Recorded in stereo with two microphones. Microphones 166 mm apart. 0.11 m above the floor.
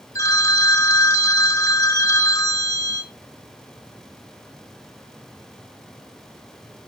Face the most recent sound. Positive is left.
turn(degrees=20)  # may be behind; listen again after turning